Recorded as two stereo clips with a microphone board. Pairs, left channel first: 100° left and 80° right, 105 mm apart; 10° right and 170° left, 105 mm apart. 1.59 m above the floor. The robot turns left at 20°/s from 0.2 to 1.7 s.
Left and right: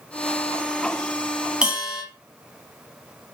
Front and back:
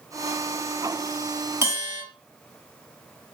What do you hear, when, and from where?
1.6 s a bell: 150° right, 1.2 m; by 2.0 s 155° right, 1.2 m